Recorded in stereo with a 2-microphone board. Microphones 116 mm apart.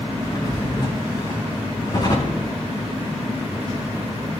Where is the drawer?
35° left (ahead or behind), 6.5 m.